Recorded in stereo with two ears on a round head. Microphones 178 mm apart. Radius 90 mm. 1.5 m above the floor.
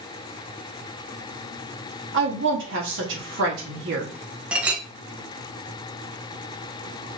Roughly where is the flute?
I don't hear a flute.